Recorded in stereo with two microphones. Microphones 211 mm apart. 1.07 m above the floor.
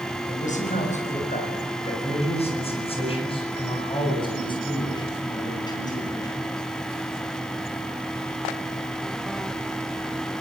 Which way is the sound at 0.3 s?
35° left (ahead or behind).